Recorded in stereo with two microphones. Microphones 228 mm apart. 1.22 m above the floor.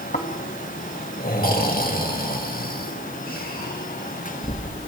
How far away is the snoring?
About 2.5 m.